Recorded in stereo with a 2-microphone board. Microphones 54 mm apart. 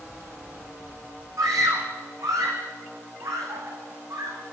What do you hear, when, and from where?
1.4 s a scream: 70° right (ahead or behind), 8.5 m; by 4.4 s 80° right, 8.5 m